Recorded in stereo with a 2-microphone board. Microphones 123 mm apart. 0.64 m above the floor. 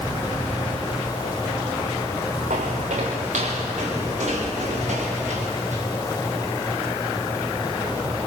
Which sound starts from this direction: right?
Footsteps, at 2.5 s.